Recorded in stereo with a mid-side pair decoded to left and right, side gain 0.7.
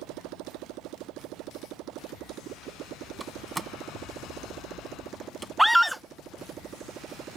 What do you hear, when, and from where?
0.0 s a motorcycle: 70° right; by 7.4 s 40° right
3.2 s a door slam: 15° right
5.6 s a scream: straight ahead